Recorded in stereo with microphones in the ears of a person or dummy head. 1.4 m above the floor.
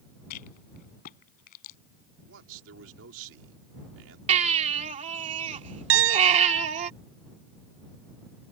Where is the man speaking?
75° right (ahead or behind).